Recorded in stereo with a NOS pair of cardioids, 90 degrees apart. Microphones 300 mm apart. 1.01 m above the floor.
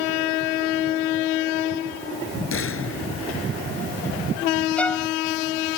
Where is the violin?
5° left.